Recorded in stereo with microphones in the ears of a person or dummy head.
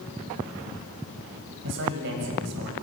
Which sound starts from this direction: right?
A man speaking, at 1.6 s.